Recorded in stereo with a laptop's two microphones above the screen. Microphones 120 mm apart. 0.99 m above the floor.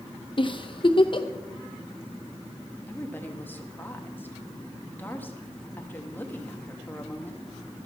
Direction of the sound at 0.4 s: 45° left (ahead or behind).